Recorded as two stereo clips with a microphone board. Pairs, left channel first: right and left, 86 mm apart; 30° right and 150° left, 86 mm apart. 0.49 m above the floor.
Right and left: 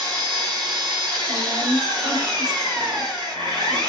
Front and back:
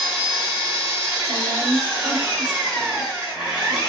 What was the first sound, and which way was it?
An engine running, 75° left.